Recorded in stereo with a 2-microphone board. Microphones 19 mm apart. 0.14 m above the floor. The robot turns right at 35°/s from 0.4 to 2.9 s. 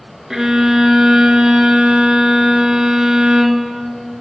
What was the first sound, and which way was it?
A violin, 150° right.